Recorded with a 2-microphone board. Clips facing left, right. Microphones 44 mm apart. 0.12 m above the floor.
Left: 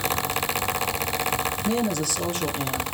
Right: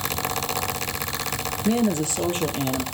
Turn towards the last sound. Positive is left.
turn(degrees=-40)  # may be behind; listen again after turning